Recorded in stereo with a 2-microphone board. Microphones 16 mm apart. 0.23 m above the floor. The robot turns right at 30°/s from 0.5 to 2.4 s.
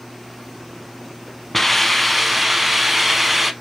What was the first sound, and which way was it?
A hiss, 5° left (ahead or behind).